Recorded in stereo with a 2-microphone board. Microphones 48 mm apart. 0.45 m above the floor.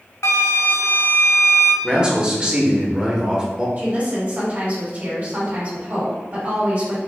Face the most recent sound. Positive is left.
turn(degrees=-35)  # may be behind; listen again after turning